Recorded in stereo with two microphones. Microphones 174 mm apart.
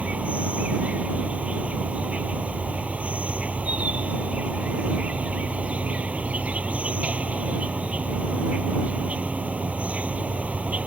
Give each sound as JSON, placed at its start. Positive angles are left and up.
{"t": 0.0, "sound": "an insect", "side_deg": -5}